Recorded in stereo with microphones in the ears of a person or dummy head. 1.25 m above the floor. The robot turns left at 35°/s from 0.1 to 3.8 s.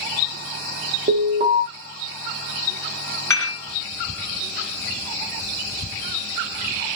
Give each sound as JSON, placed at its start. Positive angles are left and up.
{"t": 1.1, "sound": "an alarm", "side_deg": -45, "distance_m": 0.8}
{"t": 3.3, "sound": "dishes clattering", "side_deg": 10, "distance_m": 1.7}